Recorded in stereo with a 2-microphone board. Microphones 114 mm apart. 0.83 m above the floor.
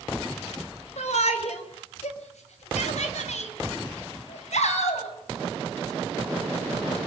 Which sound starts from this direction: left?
A shout, at 1.0 s.